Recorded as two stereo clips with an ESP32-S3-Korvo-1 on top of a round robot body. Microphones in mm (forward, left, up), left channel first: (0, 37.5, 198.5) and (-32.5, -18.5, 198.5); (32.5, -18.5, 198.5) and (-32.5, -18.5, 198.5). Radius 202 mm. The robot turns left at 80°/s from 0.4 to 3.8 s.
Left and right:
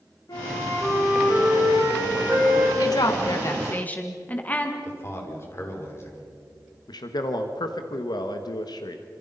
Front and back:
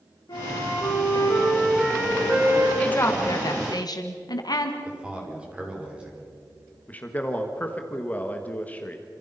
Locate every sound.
0.3 s a flute: 25° left, 5.5 m; by 2.7 s 155° right, 5.5 m
2.8 s a woman speaking: 75° left, 2 m; by 4.8 s 5° right, 2 m
4.8 s a man speaking: 110° left, 5 m
6.9 s a man speaking: 70° left, 1.5 m